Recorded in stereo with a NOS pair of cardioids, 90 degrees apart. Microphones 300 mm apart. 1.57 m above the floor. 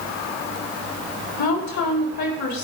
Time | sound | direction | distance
1.4 | a woman speaking | 65° left | 4.5 m